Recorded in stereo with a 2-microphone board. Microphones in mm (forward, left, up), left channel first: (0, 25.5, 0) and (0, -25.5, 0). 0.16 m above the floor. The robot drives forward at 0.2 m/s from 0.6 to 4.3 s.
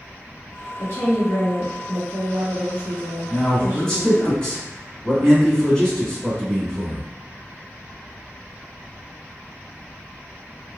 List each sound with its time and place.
0.8 s a woman speaking: 55° left (ahead or behind), 1.9 m
3.3 s a man speaking: 20° left (ahead or behind), 1.8 m